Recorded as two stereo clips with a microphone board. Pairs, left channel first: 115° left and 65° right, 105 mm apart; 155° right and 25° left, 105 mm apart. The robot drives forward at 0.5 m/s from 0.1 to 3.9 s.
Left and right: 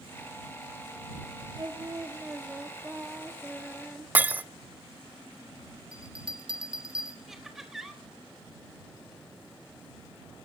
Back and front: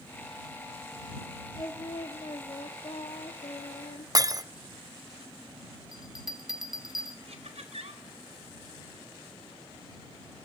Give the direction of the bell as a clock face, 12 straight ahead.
2 o'clock.